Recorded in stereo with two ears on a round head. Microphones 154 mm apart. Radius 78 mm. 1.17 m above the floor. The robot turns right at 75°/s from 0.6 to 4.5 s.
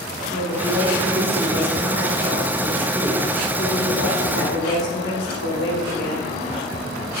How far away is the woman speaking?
About 1.9 m.